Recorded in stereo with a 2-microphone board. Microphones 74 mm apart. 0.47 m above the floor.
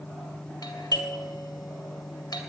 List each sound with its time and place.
0.6 s a doorbell: 60° left (ahead or behind), 2.5 m